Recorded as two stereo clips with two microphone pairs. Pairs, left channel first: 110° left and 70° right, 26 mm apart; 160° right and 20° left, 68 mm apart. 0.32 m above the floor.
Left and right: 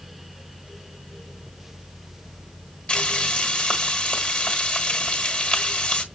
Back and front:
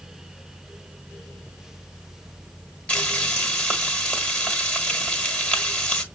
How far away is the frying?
About 1.6 m.